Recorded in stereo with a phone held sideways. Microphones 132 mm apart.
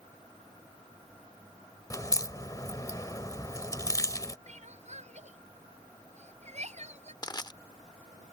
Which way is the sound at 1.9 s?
25° left (ahead or behind).